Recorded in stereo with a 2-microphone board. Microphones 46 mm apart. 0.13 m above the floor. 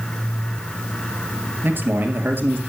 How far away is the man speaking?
About 2.5 m.